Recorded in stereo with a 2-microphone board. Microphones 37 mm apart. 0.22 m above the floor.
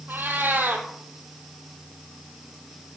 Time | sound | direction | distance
0.1 | a cat meowing | 70° right (ahead or behind) | 2 m